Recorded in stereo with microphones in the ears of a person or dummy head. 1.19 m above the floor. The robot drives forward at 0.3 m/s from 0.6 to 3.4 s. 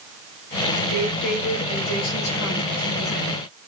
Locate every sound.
0.9 s a woman speaking: 60° left (ahead or behind), 4.5 m; by 3.4 s 50° left (ahead or behind), 4.5 m